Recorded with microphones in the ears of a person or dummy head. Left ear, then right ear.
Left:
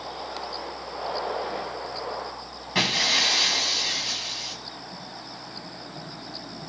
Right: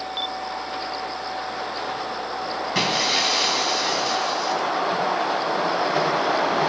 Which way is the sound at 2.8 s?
15° left (ahead or behind).